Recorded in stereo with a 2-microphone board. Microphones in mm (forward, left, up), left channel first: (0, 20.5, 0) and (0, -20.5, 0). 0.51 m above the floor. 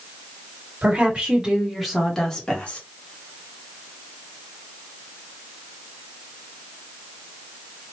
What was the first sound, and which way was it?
A woman speaking, 30° right (ahead or behind).